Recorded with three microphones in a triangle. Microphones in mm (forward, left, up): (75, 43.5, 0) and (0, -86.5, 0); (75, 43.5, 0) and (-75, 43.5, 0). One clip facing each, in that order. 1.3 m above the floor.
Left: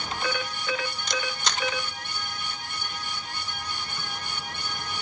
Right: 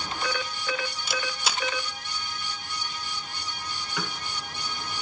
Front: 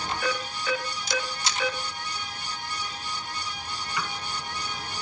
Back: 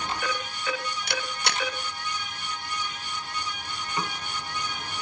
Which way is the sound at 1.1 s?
155° left.